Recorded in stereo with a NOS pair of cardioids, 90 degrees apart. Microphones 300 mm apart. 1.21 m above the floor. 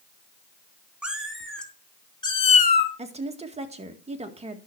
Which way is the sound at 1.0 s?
5° right.